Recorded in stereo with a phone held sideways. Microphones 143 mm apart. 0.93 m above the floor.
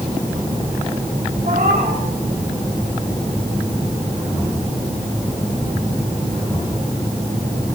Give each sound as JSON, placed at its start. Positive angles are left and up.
{"t": 1.4, "sound": "a cat meowing", "side_deg": -85, "distance_m": 6.0}